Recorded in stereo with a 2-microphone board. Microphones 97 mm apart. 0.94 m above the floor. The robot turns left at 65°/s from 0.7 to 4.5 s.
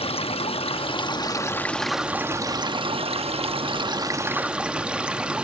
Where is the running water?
80° left, 1.0 m; by 5.4 s 170° right, 1.0 m.